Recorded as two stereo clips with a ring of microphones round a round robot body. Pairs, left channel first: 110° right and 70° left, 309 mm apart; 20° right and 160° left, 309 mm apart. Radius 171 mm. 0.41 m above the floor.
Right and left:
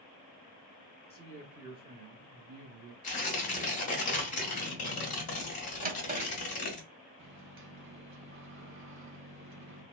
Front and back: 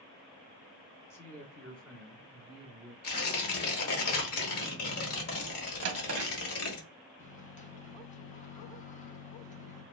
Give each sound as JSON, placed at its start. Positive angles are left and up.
{"t": 1.1, "sound": "a man speaking", "azimuth_deg": -90, "distance_m": 0.9}
{"t": 3.0, "sound": "tearing paper", "azimuth_deg": -50, "distance_m": 1.0}
{"t": 5.8, "sound": "a drawer", "azimuth_deg": 125, "distance_m": 0.7}
{"t": 7.2, "sound": "a microwave", "azimuth_deg": 35, "distance_m": 0.8}